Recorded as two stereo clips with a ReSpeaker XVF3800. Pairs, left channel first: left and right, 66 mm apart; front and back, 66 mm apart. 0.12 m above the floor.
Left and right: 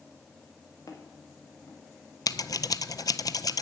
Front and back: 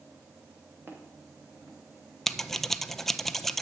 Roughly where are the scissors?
Left.